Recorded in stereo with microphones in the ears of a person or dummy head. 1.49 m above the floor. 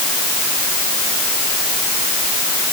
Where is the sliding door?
No sliding door in this recording.